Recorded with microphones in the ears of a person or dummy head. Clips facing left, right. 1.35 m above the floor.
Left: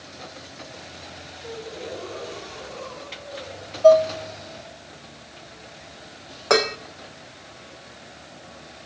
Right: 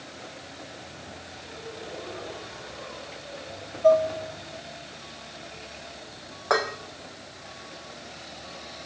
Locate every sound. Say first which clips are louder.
1.4 s a gasp: left 7 dB; 55° left (ahead or behind), 7 m
3.8 s dishes clattering: left 5 dB; 50° left (ahead or behind), 1.0 m
6.5 s dishes clattering: left 6 dB; 35° left (ahead or behind), 0.6 m